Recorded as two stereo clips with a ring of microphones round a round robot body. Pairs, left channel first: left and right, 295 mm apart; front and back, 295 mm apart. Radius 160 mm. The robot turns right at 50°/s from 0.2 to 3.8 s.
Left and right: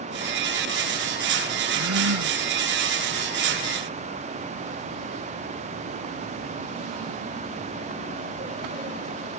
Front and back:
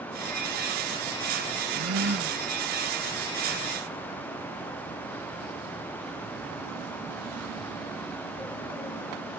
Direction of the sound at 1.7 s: 140° right.